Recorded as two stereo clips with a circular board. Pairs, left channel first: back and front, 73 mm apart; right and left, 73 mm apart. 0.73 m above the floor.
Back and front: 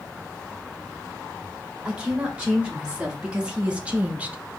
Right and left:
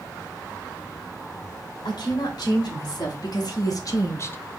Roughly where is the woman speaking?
Right.